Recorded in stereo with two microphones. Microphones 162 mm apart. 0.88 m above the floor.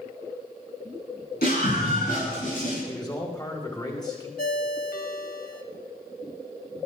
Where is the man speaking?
25° left (ahead or behind), 5 m.